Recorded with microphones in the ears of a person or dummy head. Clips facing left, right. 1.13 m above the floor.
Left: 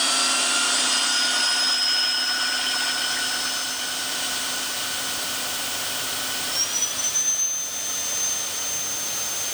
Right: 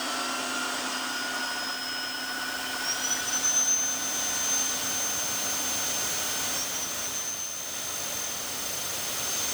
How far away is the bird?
No bird in this recording.